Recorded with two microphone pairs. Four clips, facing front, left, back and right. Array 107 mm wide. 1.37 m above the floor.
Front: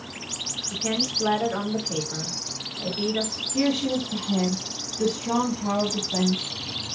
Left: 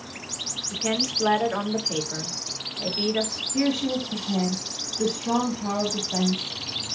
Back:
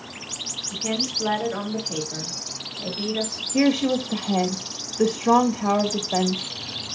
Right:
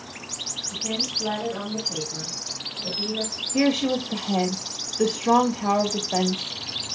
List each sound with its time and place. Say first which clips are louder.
0.7 s a woman speaking: left 4 dB, even; 90° left, 3.5 m
3.5 s a woman speaking: right 3 dB, back 4 dB; 145° right, 2 m